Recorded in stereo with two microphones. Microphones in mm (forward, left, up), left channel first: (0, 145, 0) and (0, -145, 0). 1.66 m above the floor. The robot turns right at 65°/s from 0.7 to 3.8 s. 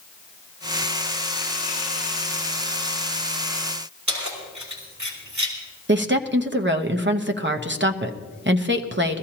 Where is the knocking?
No knocking in this recording.